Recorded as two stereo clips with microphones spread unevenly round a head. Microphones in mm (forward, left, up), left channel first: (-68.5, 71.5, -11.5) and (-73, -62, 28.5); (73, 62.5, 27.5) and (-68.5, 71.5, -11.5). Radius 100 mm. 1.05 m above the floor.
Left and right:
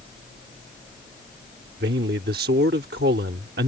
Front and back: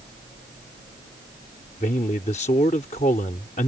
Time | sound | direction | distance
1.8 | a man speaking | 60° right | ?